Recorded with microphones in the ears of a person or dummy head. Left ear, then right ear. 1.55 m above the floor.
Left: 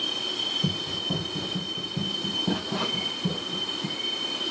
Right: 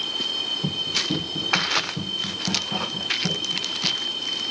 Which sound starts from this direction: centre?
Running footsteps, at 0.6 s.